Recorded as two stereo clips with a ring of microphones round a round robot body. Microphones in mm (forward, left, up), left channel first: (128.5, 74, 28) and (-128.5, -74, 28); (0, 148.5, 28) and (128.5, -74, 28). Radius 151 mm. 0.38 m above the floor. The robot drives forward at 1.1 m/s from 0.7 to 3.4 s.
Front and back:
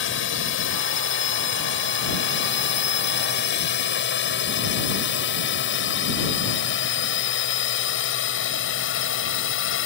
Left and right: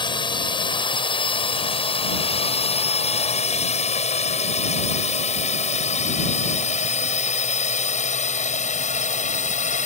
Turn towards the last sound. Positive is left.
turn(degrees=65)